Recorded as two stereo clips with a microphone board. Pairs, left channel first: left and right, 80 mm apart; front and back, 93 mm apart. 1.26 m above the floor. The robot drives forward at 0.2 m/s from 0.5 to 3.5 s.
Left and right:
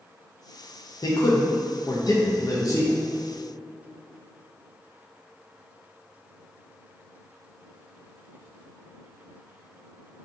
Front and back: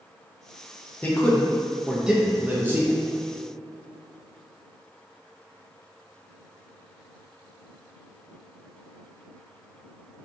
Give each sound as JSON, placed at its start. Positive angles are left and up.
{"t": 1.0, "sound": "a man speaking", "azimuth_deg": 70, "distance_m": 0.5}